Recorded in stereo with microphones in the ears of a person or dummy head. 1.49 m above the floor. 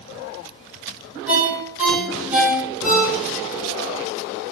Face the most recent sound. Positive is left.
turn(degrees=-5)  # may be behind; listen again after turning